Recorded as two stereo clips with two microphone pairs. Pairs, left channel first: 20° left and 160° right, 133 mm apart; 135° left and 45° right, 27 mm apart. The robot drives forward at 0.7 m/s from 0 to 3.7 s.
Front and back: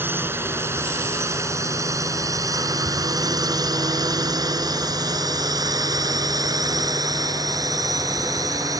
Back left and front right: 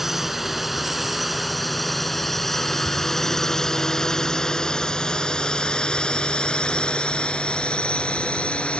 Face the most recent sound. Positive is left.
turn(degrees=145)